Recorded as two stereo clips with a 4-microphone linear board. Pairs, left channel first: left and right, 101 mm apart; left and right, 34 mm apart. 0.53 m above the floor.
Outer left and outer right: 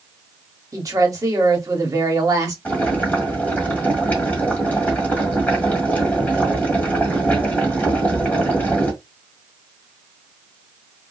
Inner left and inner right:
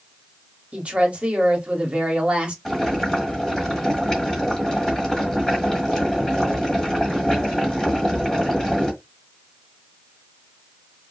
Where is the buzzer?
No buzzer in this recording.